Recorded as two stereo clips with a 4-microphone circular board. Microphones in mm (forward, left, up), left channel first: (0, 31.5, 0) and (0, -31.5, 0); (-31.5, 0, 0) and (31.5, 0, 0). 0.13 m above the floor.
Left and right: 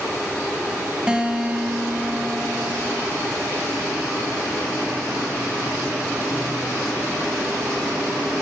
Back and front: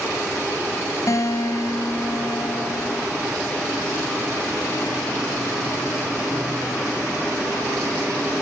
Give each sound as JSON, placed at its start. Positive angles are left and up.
{"t": 1.1, "sound": "a guitar", "azimuth_deg": -160, "distance_m": 1.7}